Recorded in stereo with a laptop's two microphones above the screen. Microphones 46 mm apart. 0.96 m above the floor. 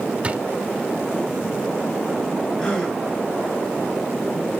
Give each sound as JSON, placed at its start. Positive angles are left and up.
{"t": 0.2, "sound": "a drawer", "side_deg": -25, "distance_m": 1.8}
{"t": 2.6, "sound": "a gasp", "side_deg": 20, "distance_m": 6.5}